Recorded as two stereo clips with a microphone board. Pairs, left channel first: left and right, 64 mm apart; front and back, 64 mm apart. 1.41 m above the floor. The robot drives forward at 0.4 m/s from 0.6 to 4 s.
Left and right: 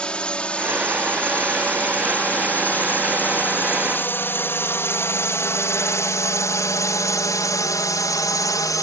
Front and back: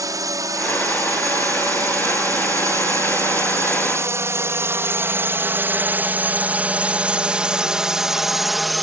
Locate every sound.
0.0 s a drone: 165° left; by 8.8 s 90° left